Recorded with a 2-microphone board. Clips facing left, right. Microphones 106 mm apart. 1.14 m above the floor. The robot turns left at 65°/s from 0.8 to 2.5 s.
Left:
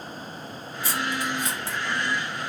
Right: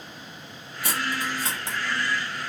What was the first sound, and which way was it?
Cutlery clinking, 70° right (ahead or behind).